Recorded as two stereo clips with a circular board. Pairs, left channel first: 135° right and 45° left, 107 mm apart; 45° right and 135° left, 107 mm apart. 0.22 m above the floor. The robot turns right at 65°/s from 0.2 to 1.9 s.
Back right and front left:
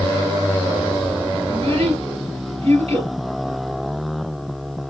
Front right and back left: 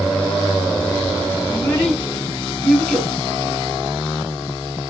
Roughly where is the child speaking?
Ahead.